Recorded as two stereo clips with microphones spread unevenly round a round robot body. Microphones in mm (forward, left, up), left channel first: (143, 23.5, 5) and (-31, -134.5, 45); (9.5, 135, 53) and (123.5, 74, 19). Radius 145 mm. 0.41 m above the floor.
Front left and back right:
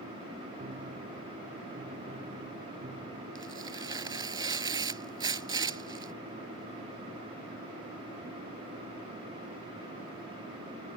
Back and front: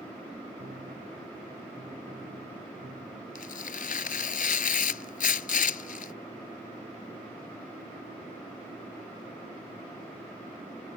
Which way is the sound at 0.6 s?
80° right.